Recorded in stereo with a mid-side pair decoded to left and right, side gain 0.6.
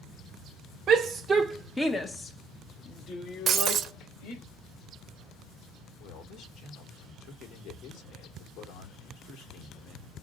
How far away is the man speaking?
About 1.3 m.